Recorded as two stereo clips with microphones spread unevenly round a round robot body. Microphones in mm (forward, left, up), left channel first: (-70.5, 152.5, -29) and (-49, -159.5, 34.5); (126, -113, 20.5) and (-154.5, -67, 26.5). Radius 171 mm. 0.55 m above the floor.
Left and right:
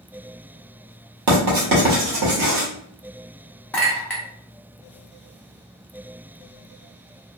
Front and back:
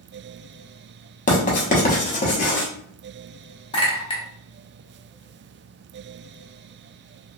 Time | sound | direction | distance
1.3 | writing | 60° right | 1.1 m
3.7 | a clink | 40° left | 0.6 m